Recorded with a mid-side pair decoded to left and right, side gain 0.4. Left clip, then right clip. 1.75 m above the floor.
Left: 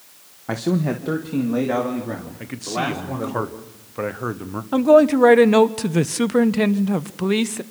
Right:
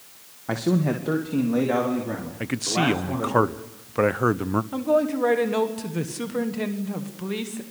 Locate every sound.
0.5 s a man speaking: 10° left, 1.6 m
2.4 s a man speaking: 40° right, 1.0 m
4.7 s a man speaking: 70° left, 1.1 m